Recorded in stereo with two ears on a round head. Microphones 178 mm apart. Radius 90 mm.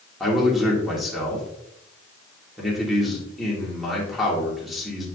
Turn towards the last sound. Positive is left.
turn(degrees=0)  # may be behind; listen again after turning